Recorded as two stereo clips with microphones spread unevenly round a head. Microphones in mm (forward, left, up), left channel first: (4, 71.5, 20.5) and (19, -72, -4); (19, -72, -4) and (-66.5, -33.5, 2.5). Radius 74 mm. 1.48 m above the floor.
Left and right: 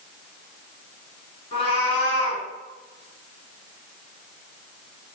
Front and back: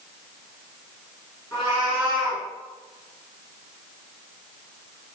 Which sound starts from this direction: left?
A cat meowing, at 1.5 s.